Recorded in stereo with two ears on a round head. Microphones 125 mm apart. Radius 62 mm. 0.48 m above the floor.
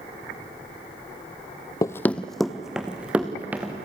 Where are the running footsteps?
25° left (ahead or behind), 0.6 m; by 3.7 s 10° right (ahead or behind), 2.5 m.